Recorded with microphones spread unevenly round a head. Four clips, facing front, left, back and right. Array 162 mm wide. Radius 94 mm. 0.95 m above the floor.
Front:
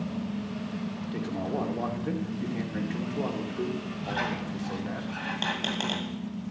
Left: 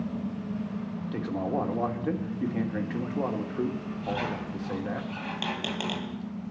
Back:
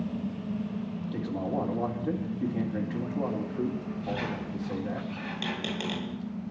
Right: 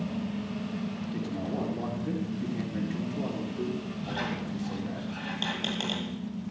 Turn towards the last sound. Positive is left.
turn(degrees=35)